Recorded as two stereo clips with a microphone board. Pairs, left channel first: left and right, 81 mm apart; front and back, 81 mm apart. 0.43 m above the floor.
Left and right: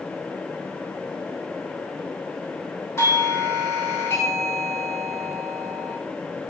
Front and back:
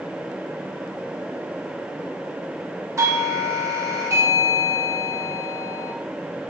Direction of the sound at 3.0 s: 135° left.